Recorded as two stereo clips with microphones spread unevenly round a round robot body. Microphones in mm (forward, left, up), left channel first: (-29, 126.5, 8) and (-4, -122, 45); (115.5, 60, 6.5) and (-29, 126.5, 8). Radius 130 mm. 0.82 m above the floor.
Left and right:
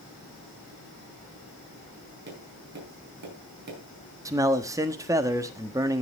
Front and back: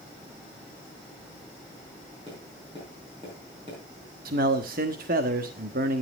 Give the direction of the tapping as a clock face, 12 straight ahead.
4 o'clock.